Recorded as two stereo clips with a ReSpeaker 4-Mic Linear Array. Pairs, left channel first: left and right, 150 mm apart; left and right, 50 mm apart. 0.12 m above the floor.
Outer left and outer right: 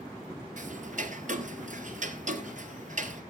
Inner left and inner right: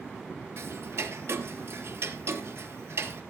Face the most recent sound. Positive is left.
turn(degrees=-60)  # may be behind; listen again after turning